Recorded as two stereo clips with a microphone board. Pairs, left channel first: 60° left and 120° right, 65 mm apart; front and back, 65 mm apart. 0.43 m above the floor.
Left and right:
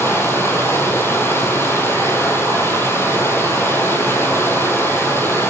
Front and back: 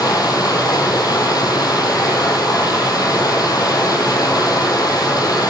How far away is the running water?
About 4 m.